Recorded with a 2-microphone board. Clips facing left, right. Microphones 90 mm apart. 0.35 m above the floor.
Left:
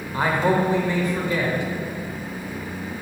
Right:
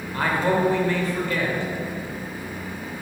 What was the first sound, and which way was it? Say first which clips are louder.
A man speaking: left 2 dB; 20° left (ahead or behind).